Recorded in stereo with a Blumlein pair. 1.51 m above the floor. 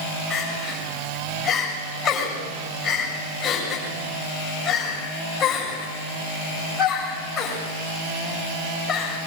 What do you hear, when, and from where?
0.3 s crying: 20° left, 7 m